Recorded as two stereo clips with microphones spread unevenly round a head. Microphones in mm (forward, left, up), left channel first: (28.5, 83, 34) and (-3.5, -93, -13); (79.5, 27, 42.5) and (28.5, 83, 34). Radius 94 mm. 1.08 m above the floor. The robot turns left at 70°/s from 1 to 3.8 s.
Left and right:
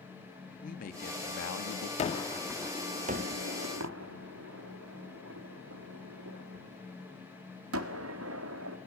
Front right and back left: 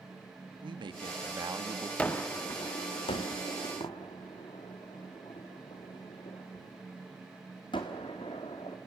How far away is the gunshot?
About 1.5 m.